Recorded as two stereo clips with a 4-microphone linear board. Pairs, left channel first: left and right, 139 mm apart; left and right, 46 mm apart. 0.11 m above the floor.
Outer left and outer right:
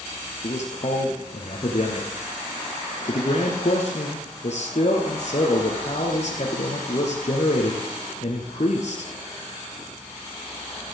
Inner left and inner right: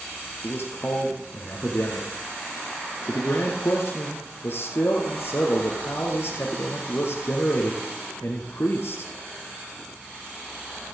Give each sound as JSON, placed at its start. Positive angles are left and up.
{"t": 0.4, "sound": "a man speaking", "side_deg": 55, "distance_m": 2.5}